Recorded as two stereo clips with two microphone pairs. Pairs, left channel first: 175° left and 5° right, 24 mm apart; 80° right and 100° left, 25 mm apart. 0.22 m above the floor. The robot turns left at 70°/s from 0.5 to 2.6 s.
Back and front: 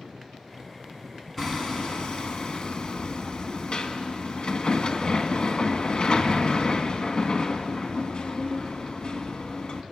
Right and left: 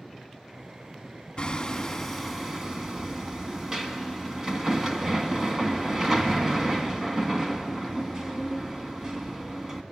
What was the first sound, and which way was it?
Hammering, 115° right.